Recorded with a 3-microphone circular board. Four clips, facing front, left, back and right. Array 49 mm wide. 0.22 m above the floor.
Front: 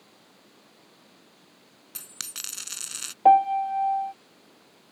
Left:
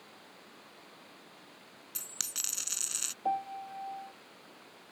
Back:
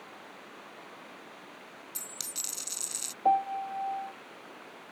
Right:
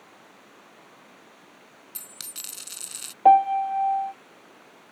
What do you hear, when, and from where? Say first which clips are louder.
0.0 s running water: right 3 dB, back 9 dB; 160° right
1.9 s a dropped coin: left 2 dB, front 2 dB; 15° left
3.2 s a piano: right 18 dB, front 9 dB; 60° right